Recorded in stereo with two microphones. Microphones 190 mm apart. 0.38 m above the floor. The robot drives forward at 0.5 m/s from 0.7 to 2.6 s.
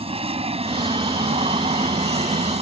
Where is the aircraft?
30° right (ahead or behind); by 2.6 s 35° right (ahead or behind).